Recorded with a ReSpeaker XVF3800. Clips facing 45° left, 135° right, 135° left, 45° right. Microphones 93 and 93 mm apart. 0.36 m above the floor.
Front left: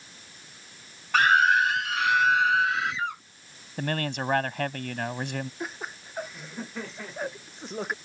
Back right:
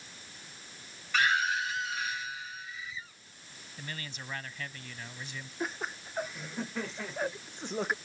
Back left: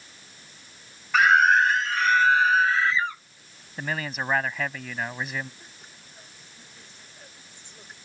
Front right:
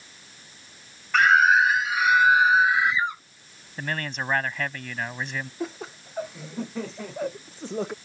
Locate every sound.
1.1 s a scream: 50° left; by 3.2 s 30° left
3.8 s a man speaking: 50° left
5.6 s laughter: 45° right